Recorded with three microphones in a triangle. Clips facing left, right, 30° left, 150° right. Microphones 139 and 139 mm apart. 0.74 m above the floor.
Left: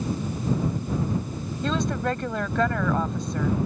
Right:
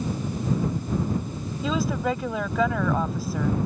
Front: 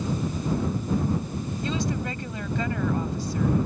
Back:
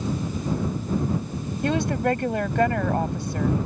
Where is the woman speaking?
175° right.